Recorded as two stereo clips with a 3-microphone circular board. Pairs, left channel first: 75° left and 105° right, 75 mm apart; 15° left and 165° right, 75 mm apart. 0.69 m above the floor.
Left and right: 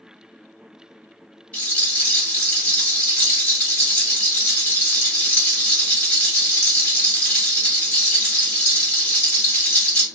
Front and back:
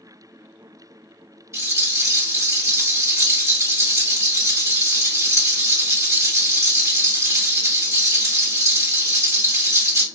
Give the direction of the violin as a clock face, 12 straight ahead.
No violin in this recording.